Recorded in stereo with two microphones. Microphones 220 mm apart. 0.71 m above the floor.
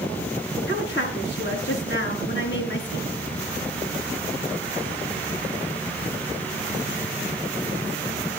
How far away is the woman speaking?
About 7 m.